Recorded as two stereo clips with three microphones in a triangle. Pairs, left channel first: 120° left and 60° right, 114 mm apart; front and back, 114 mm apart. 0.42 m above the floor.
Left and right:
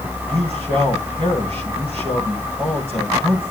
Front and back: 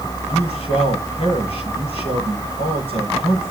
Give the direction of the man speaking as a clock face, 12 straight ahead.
1 o'clock.